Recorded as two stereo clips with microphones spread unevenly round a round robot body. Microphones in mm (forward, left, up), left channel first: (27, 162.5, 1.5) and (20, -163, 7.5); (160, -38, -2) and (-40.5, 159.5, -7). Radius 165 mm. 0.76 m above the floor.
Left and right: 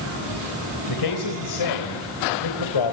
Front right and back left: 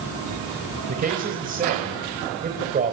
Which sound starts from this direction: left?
A man speaking, at 0.9 s.